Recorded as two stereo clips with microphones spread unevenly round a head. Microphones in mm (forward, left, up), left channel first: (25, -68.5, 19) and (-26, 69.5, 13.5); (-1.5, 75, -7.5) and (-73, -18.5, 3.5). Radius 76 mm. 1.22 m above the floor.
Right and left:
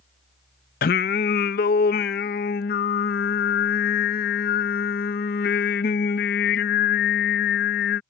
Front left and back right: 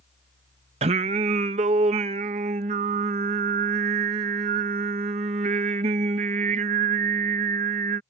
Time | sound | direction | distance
0.8 | singing | 90° right | ?